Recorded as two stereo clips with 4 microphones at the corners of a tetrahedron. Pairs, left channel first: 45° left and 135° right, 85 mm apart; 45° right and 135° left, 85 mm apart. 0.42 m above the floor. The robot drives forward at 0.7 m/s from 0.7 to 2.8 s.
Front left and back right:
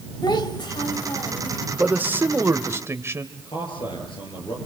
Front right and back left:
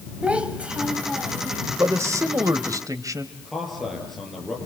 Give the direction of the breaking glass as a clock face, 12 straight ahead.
I don't hear breaking glass.